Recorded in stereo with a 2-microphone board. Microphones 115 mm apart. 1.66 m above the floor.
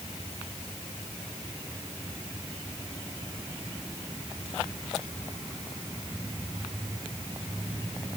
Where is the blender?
No blender in this recording.